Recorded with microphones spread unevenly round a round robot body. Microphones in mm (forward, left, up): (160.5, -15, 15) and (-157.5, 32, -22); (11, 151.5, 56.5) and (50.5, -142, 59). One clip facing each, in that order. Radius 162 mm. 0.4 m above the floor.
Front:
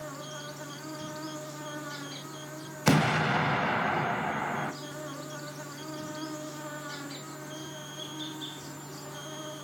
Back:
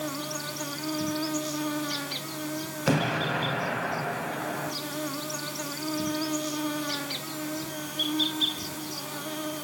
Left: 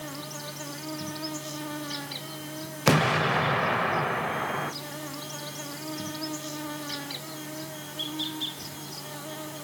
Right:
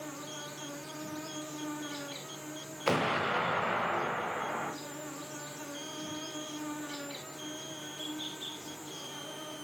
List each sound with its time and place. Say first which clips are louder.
0.0 s an insect: back 8 dB, left 4 dB; 135° left, 0.8 m
2.9 s an explosion: front 1 dB, left 7 dB; 70° left, 0.8 m